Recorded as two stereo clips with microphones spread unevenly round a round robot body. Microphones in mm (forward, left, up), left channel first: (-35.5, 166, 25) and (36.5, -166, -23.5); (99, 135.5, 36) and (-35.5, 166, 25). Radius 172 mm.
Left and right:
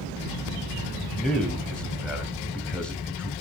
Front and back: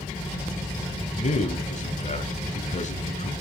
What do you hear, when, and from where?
1.2 s a man speaking: 10° left, 2.5 m